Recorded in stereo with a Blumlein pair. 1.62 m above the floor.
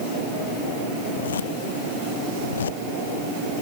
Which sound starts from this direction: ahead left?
A zipper, at 1.1 s.